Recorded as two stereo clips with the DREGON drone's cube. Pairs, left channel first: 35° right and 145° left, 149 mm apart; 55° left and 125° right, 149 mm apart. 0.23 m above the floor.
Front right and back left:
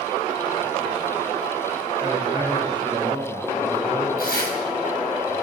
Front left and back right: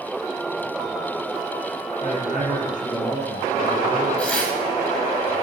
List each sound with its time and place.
2.0 s a man speaking: 85° left, 5.5 m
4.2 s tearing paper: 25° right, 5 m